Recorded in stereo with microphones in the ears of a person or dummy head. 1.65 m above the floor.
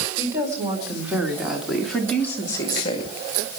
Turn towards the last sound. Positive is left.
turn(degrees=40)  # may be behind; listen again after turning